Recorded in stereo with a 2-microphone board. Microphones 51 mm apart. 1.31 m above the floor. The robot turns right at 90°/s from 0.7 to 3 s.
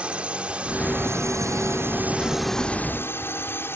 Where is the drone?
155° right; by 3.8 s 50° left.